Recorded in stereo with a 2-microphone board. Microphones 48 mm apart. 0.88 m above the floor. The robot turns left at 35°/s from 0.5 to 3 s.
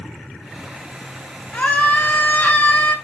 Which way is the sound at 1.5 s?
125° left.